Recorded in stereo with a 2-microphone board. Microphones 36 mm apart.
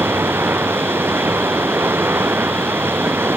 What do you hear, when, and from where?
0.0 s running water: 90° right